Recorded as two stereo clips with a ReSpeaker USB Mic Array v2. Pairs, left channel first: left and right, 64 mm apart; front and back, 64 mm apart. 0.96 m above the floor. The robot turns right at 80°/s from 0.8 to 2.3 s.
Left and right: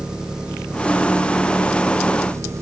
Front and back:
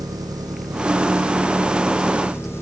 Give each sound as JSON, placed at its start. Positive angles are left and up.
{"t": 0.0, "sound": "an engine running", "azimuth_deg": -170}